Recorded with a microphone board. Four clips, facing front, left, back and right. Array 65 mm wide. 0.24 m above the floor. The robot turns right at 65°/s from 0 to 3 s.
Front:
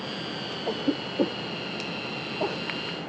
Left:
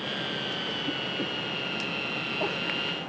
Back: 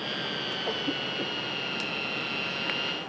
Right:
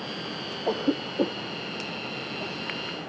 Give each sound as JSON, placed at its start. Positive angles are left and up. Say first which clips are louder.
{"t": 0.7, "sound": "a cough", "louder": "right 6 dB, front 6 dB", "azimuth_deg": -85}